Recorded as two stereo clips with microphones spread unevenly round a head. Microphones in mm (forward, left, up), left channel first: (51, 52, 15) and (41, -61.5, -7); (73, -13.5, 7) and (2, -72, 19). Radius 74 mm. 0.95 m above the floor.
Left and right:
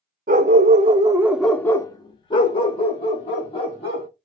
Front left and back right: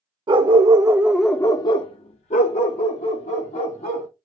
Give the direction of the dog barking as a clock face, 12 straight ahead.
4 o'clock.